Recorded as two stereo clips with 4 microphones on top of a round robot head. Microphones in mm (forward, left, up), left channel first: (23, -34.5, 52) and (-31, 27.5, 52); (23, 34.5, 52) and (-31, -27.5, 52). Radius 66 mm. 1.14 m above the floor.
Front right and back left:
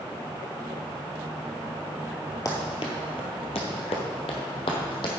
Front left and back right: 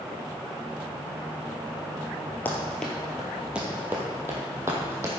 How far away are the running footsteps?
About 1.2 m.